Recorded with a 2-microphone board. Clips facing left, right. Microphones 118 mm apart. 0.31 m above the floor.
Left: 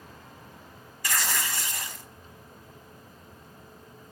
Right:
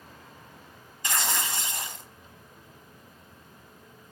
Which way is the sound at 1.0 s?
25° right (ahead or behind).